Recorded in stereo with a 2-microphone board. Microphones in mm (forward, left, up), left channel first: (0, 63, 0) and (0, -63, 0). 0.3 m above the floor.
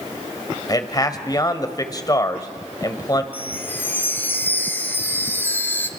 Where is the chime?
15° left (ahead or behind), 1.7 m.